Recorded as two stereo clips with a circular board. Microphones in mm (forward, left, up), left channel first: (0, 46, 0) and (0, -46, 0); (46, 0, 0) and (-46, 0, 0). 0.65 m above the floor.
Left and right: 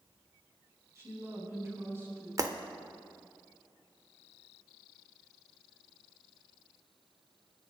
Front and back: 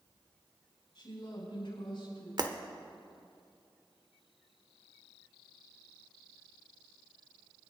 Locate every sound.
0.9 s a woman speaking: 30° right, 4.5 m
2.4 s breaking glass: 140° right, 0.8 m